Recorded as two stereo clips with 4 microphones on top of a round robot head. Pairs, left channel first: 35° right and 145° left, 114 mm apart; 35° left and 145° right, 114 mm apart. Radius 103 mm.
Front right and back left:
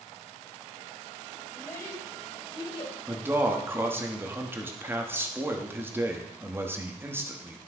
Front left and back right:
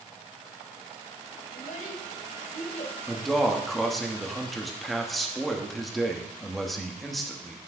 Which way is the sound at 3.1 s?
125° left.